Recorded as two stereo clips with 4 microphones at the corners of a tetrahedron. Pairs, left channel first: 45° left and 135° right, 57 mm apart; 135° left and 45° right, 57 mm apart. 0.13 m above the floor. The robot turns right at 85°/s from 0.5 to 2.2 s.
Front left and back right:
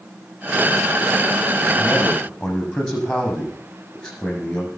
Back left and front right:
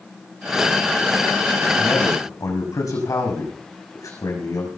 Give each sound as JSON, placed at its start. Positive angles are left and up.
{"t": 1.8, "sound": "a man speaking", "azimuth_deg": 95, "distance_m": 6.0}